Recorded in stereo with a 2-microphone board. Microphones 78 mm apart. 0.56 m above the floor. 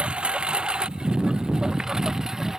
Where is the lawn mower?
15° right (ahead or behind); by 2.6 s 5° right (ahead or behind).